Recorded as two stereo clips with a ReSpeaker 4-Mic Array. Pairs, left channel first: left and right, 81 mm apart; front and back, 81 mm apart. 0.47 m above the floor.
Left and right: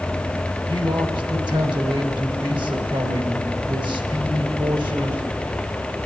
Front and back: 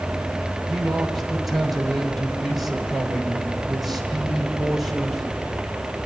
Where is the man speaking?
90° right, 2.5 m.